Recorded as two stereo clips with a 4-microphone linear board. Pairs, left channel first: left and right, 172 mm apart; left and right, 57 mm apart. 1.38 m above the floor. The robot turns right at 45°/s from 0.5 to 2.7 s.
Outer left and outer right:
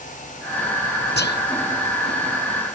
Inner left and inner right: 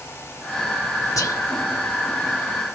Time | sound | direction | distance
1.2 | whispering | 75° left (ahead or behind) | ?